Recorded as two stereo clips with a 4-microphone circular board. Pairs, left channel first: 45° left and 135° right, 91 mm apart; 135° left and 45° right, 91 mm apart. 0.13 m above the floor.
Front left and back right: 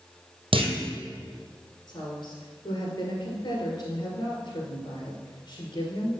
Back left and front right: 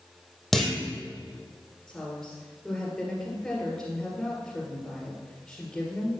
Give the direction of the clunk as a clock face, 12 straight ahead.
5 o'clock.